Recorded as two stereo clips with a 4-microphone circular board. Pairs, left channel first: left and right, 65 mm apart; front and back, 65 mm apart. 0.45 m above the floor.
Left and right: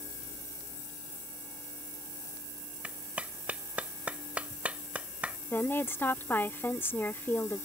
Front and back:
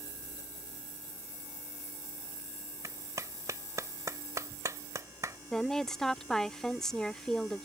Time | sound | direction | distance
2.8 | a clap | 160° right | ?
5.5 | a woman speaking | 75° left | ?